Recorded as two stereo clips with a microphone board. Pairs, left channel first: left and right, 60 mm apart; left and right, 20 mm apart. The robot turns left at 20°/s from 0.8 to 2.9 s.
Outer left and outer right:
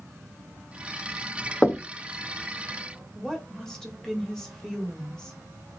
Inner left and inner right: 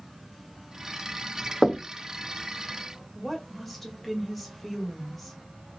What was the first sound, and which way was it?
Knocking, 20° left (ahead or behind).